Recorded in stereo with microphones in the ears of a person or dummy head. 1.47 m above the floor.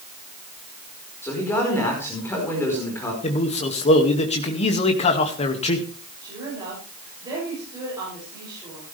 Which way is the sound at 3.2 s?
35° left (ahead or behind).